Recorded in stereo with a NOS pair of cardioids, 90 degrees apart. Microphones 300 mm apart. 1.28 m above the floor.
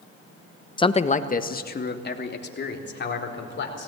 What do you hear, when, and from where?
0.8 s a man speaking: 15° left, 1.0 m; by 3.9 s 40° left, 5 m